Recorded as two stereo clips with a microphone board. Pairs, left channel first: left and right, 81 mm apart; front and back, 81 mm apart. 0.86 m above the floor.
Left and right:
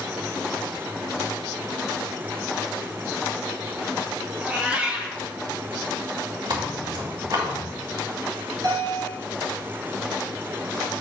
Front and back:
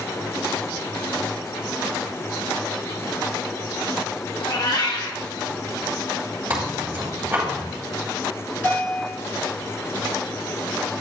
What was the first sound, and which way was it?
A cat meowing, 20° right.